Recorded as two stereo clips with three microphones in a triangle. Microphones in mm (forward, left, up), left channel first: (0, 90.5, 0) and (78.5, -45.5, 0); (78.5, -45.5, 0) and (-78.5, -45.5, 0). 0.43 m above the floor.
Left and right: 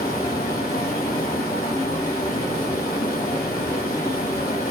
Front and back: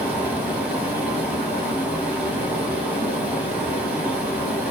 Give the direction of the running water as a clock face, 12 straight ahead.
9 o'clock.